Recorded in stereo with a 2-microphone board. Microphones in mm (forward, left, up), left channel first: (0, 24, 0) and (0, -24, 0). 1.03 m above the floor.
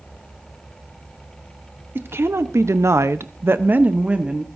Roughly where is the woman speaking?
Right.